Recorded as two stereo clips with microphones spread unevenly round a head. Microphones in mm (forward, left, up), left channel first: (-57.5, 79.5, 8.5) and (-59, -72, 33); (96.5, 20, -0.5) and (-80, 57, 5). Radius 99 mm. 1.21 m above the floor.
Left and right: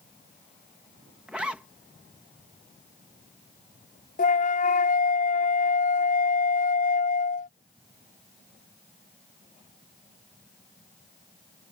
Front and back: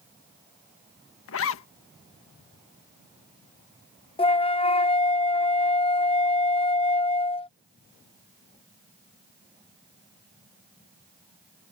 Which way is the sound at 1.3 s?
5° right.